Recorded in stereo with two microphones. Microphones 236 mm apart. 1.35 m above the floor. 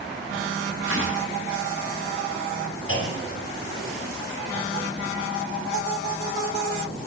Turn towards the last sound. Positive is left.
turn(degrees=60)  # may be behind; listen again after turning